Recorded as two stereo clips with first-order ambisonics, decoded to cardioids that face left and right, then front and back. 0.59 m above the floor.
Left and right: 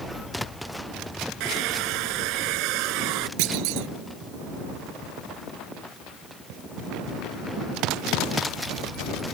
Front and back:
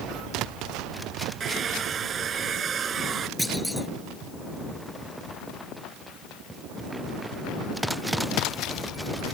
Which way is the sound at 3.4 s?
90° right.